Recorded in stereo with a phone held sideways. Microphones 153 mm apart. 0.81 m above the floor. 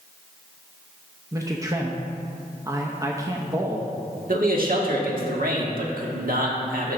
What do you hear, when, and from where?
1.3 s a man speaking: 20° right (ahead or behind), 0.7 m
4.3 s a man speaking: 70° right (ahead or behind), 1.6 m